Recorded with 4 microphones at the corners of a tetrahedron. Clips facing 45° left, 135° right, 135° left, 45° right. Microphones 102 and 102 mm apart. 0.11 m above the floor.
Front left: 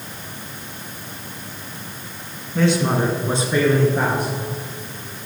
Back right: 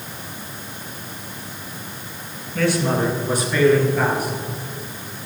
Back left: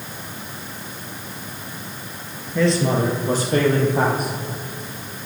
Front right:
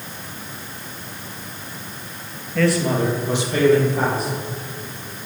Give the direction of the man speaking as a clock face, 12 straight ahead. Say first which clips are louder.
Front left 1 dB, even; 9 o'clock.